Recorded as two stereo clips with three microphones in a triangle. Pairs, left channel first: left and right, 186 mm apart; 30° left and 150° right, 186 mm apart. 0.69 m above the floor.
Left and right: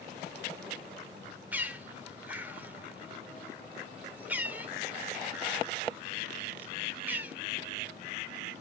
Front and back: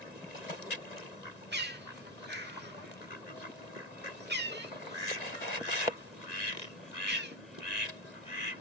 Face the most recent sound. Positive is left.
turn(degrees=-170)